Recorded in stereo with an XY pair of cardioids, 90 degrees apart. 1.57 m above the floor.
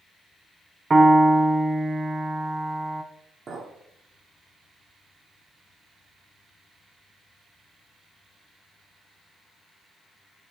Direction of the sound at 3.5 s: 55° right.